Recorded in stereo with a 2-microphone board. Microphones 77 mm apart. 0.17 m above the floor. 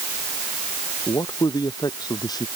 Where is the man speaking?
65° left (ahead or behind).